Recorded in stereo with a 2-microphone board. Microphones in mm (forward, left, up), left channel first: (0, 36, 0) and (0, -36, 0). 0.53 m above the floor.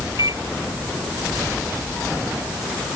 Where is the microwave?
55° right (ahead or behind).